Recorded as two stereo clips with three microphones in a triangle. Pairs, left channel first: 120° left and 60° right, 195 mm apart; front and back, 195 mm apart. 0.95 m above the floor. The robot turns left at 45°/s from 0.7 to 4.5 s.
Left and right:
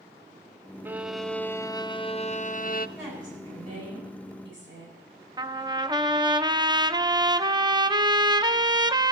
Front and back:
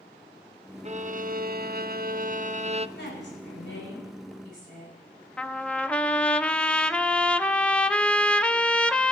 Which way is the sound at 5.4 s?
75° right.